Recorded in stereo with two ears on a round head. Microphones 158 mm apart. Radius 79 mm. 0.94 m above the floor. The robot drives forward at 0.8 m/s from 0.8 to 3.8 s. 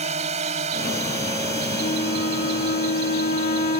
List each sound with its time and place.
0.0 s a drone: 40° right (ahead or behind); by 3.8 s 35° right (ahead or behind)
1.8 s a flute: 40° left (ahead or behind)